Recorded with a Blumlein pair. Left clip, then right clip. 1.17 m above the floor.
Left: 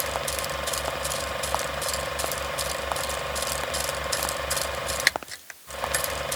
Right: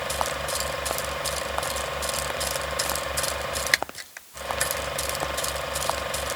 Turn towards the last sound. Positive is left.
No sound to turn to.